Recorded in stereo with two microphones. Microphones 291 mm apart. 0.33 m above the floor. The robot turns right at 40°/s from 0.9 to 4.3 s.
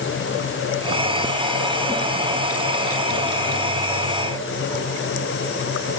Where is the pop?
No pop in this recording.